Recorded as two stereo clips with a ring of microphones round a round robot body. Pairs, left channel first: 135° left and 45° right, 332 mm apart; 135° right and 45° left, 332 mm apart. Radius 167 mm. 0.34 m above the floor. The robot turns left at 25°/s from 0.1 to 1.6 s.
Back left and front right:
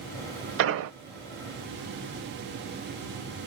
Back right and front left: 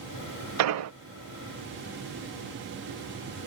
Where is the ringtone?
No ringtone in this recording.